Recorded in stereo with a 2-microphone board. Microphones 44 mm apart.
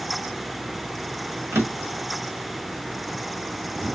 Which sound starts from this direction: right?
A drawer, at 1.5 s.